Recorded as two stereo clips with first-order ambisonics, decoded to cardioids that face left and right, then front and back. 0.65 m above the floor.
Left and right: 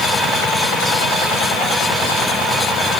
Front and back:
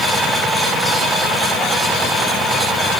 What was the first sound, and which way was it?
Only background noise.